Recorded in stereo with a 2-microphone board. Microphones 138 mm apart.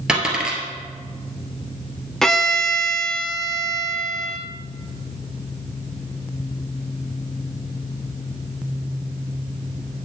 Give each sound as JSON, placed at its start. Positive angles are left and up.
{"t": 0.1, "sound": "a dropped coin", "side_deg": -5, "distance_m": 2.0}
{"t": 2.2, "sound": "a violin", "side_deg": 5, "distance_m": 0.9}